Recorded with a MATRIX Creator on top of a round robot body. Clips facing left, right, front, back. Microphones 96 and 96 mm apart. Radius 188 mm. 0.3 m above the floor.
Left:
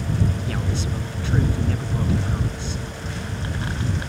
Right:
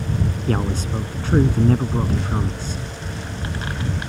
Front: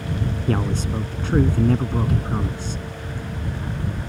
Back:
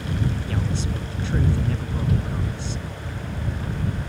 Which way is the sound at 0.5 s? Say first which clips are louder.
Right 4 dB, front 4 dB; 45° right.